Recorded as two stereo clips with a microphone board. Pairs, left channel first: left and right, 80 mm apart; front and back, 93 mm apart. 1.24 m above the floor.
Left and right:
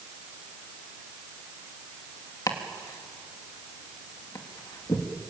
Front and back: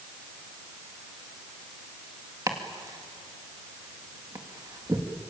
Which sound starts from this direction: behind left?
Chopping, at 2.5 s.